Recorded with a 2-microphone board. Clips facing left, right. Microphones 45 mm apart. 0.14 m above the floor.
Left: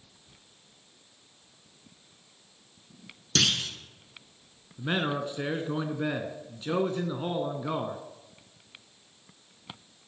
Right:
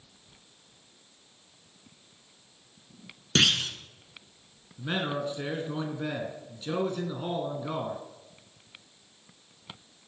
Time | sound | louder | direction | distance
3.4 | a clunk | right 3 dB | 30° right (ahead or behind) | 1.4 m
4.8 | a man speaking | left 2 dB | 20° left (ahead or behind) | 1.1 m